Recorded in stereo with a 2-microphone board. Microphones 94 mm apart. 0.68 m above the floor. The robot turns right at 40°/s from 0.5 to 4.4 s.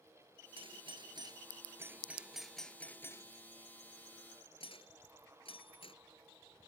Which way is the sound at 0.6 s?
75° right (ahead or behind).